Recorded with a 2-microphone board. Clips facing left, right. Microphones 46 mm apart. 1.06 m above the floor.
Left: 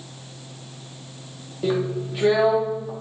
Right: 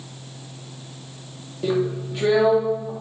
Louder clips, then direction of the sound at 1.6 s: Right 1 dB; 5° left (ahead or behind).